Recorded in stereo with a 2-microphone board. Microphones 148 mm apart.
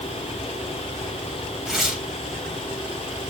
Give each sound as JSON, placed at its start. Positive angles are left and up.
{"t": 1.7, "sound": "tearing paper", "side_deg": 0, "distance_m": 3.0}